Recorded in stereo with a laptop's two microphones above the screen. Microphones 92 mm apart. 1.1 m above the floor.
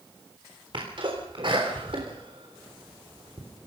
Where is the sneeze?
60° right (ahead or behind), 3.5 m.